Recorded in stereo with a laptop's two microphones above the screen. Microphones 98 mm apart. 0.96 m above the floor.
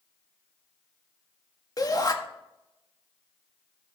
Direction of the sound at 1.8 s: 40° left (ahead or behind).